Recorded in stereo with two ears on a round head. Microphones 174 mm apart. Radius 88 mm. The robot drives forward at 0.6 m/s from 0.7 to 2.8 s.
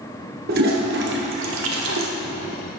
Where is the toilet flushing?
50° right (ahead or behind), 1.1 m; by 2.1 s 80° right, 0.9 m.